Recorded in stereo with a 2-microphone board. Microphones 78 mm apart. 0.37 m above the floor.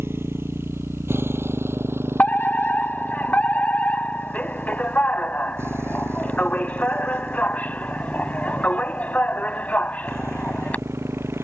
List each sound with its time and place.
0.0 s a motorcycle: 30° right (ahead or behind)
2.2 s a fire alarm: 20° left (ahead or behind)